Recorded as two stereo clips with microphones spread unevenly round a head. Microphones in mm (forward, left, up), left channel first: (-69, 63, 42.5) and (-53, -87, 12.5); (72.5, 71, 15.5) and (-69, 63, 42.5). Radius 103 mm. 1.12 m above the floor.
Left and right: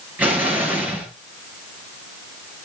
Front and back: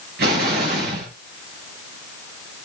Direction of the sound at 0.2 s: 165° right.